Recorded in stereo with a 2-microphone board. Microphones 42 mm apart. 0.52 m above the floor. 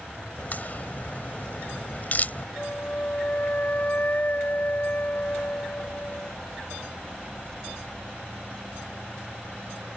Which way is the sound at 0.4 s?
45° left (ahead or behind).